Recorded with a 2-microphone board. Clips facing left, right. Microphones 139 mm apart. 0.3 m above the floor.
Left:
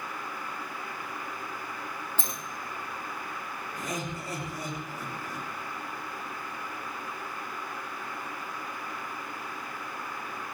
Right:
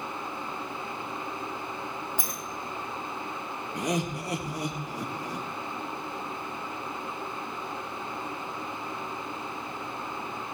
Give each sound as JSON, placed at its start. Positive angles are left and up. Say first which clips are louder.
{"t": 2.2, "sound": "a sliding door", "louder": "right 1 dB", "side_deg": -10, "distance_m": 2.5}
{"t": 3.8, "sound": "laughter", "louder": "right 7 dB", "side_deg": -75, "distance_m": 5.5}